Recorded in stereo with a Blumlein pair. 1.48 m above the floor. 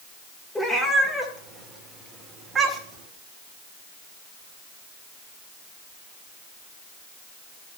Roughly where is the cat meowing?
Ahead.